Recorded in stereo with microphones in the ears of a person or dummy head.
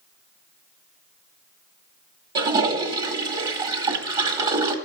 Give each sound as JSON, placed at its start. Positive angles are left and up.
{"t": 2.4, "sound": "a toilet flushing", "side_deg": -20, "distance_m": 1.4}